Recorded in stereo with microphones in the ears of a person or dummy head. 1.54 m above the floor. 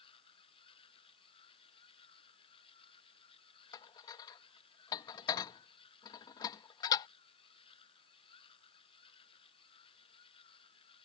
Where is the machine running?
35° left (ahead or behind).